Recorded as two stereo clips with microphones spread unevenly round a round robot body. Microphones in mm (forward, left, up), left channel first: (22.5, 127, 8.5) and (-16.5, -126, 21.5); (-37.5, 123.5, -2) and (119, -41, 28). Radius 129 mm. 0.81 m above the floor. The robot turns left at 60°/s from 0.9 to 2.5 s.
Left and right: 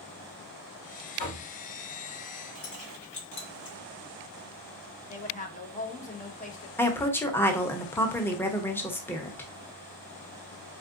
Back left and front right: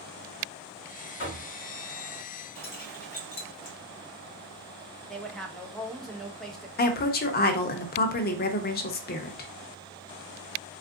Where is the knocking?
100° left, 2.5 m; by 1.4 s 85° left, 2.5 m.